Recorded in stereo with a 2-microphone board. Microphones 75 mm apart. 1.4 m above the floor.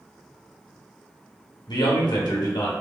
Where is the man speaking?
70° left (ahead or behind), 0.9 m.